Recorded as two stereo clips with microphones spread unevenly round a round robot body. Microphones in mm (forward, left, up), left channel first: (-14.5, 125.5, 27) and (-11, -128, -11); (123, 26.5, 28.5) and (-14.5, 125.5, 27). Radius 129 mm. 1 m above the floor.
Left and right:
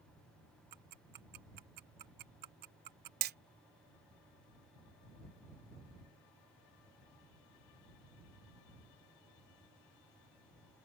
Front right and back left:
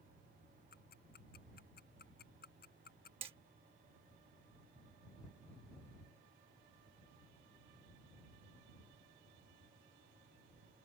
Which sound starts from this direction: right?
Ticking, at 0.7 s.